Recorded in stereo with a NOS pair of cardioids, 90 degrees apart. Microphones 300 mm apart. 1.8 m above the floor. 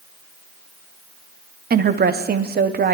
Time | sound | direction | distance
1.7 | a woman speaking | 30° right | 0.9 m